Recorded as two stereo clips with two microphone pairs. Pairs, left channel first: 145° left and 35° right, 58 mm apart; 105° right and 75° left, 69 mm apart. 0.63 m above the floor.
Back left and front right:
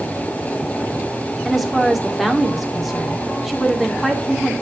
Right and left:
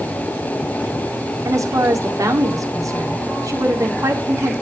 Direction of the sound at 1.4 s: 50° left.